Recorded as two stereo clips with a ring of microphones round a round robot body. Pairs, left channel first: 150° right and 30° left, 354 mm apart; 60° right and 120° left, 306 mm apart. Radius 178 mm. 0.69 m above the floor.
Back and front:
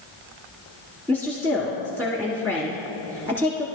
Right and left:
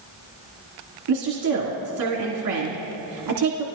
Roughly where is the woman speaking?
Left.